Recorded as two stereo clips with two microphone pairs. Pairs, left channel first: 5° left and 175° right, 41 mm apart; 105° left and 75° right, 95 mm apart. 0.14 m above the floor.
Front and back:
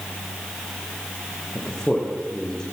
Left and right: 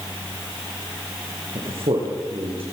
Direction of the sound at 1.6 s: 65° right.